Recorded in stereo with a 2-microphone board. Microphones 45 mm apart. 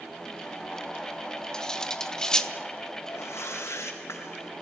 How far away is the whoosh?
About 4 m.